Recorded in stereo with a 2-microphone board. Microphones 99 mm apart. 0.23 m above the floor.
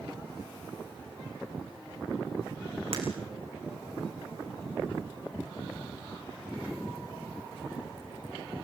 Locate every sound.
2.9 s breaking glass: 75° right (ahead or behind), 5 m